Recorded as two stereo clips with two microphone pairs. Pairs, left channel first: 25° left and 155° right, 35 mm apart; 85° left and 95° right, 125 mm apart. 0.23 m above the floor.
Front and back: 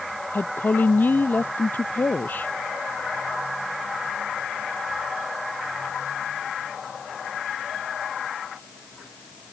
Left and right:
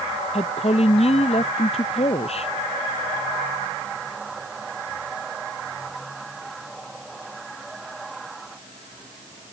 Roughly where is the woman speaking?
Ahead left.